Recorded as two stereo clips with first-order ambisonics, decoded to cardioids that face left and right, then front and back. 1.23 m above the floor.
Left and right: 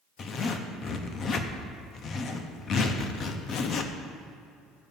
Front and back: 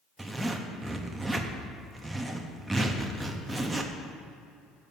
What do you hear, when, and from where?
0.2 s a zipper: 105° left, 0.6 m